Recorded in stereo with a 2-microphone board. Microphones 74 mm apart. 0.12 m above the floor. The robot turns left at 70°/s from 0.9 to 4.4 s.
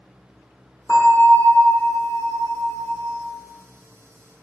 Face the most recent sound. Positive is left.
turn(degrees=175)